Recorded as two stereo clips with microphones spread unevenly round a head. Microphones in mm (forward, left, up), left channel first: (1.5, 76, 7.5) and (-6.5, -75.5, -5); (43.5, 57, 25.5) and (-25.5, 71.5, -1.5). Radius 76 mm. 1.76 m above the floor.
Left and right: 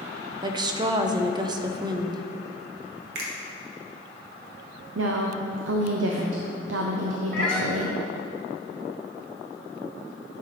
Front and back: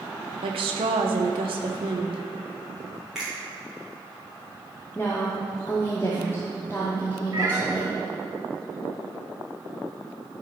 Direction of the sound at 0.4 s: 155° right.